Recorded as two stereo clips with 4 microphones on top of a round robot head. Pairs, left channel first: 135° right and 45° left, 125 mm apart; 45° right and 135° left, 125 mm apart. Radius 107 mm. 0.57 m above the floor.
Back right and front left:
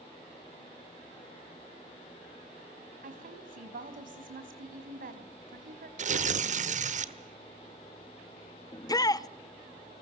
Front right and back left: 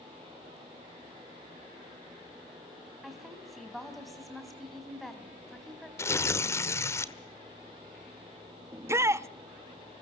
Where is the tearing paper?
25° left, 1.5 m.